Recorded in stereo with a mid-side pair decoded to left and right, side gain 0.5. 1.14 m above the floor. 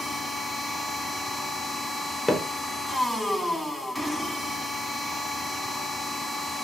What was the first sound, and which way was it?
A machine running, 5° left.